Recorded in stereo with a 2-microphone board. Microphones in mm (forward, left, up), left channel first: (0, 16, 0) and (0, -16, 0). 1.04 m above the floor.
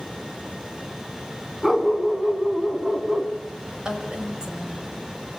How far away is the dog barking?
About 2.5 m.